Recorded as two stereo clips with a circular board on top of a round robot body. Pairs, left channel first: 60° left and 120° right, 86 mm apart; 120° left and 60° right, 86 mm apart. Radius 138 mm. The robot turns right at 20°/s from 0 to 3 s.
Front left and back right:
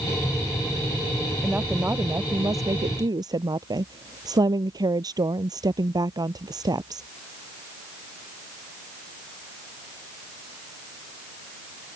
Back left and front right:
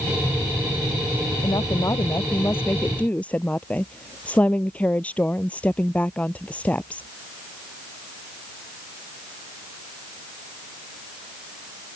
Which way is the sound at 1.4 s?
165° left.